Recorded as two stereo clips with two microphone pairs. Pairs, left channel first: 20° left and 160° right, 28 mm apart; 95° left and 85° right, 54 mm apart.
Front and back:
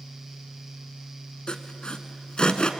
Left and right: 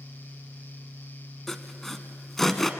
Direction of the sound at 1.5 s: 15° left.